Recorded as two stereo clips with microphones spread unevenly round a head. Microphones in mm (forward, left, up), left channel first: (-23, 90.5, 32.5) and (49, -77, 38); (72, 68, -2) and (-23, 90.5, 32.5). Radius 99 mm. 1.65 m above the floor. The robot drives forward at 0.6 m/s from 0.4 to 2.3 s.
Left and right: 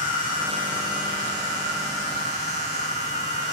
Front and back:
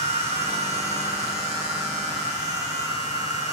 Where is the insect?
150° left, 1.8 m; by 3.5 s 160° left, 3 m.